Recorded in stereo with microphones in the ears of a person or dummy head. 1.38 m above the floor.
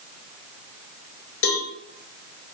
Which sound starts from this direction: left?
A cowbell, at 1.4 s.